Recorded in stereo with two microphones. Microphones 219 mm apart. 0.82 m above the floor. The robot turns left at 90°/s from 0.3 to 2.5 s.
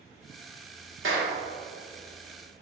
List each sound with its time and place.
1.0 s a clap: 65° right (ahead or behind), 1.6 m; by 1.3 s 80° right, 1.6 m